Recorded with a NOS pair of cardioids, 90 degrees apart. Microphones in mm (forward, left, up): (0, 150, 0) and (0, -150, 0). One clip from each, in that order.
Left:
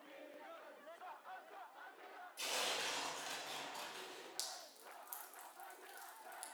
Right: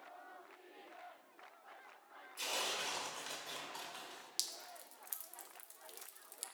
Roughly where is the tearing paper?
Ahead.